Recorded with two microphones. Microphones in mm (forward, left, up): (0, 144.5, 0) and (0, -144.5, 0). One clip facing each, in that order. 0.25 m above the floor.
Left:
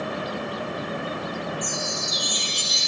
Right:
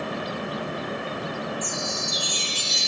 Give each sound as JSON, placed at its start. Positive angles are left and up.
{"t": 1.6, "sound": "a chime", "side_deg": -35, "distance_m": 4.5}